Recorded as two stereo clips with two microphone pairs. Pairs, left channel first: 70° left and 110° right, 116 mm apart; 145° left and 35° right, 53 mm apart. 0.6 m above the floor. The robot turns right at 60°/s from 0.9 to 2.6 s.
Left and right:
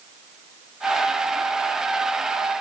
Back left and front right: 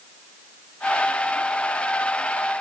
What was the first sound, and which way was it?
Only background noise.